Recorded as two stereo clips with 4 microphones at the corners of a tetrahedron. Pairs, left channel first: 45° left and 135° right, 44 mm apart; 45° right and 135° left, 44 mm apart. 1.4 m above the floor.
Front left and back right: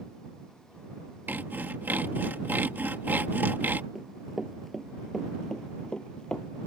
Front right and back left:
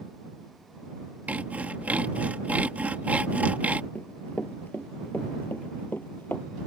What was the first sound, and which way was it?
Sawing, 170° right.